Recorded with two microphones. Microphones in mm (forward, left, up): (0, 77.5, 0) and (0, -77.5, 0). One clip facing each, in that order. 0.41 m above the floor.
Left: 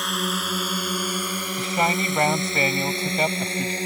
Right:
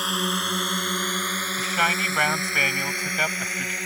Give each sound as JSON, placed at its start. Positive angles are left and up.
{"t": 0.0, "sound": "a drone", "side_deg": 0}
{"t": 1.6, "sound": "a man speaking", "side_deg": 25}